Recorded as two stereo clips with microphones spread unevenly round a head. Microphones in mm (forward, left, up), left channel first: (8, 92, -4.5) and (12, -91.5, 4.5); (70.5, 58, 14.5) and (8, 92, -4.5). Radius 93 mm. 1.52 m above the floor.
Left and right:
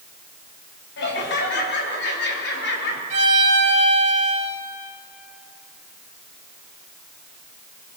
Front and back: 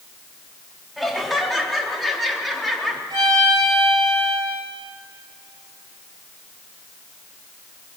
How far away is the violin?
About 3 m.